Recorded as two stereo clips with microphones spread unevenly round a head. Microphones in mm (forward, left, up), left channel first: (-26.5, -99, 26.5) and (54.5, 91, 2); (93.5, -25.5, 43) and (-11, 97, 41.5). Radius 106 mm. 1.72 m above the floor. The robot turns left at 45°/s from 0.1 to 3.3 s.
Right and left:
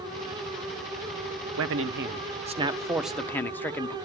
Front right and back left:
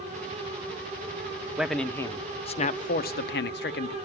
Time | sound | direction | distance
1.6 | a man speaking | 45° left | 1.0 m